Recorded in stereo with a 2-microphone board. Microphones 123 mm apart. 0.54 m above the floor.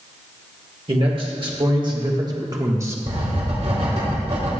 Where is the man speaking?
45° right (ahead or behind), 1.9 m; by 3.0 s 20° right (ahead or behind), 1.1 m.